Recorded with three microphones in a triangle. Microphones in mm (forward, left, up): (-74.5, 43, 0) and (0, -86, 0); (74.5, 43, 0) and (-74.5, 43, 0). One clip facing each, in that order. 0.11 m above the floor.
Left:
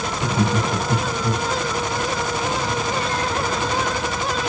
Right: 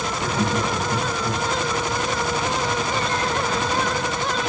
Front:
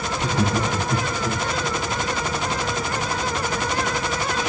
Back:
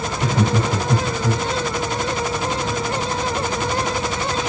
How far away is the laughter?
About 3 m.